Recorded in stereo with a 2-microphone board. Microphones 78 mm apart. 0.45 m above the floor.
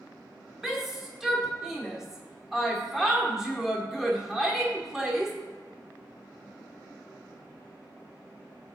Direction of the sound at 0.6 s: 5° right (ahead or behind).